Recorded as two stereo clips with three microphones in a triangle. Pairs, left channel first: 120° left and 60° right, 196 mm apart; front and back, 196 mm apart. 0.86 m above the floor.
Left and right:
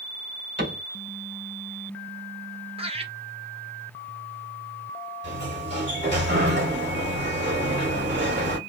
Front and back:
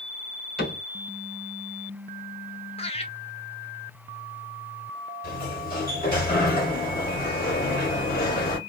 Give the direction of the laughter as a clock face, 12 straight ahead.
1 o'clock.